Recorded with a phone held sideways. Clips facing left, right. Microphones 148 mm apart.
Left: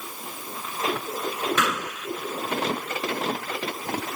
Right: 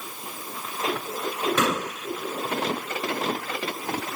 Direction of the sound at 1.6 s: 30° right (ahead or behind).